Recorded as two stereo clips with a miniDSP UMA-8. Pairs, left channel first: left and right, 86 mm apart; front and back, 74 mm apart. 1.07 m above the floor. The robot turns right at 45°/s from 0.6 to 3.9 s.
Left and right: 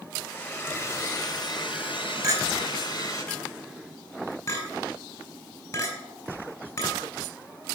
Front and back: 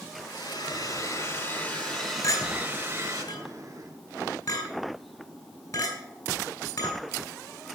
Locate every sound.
0.2 s a hair dryer: 20° left, 4.5 m; by 3.2 s 140° left, 4.5 m
2.2 s a clink: 35° right, 4 m; by 6.9 s 40° left, 4 m